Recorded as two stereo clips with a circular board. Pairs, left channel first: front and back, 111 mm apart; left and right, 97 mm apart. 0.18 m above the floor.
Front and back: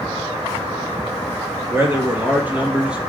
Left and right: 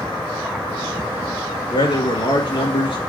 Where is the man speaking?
115° left, 3 m; by 3.1 s 100° left, 3 m.